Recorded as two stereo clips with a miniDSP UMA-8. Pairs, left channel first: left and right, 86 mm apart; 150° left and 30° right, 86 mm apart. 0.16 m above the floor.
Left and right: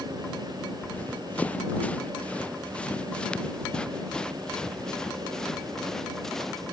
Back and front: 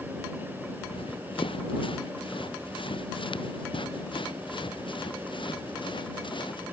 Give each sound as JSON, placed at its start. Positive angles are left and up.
{"t": 0.8, "sound": "running footsteps", "azimuth_deg": 165}